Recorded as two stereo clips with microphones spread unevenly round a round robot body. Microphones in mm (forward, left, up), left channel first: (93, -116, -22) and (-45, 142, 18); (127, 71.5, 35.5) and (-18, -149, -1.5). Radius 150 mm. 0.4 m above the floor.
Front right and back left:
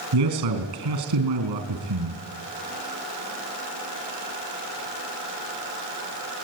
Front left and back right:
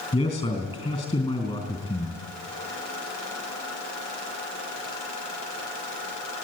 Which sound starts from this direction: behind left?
A man speaking, at 0.1 s.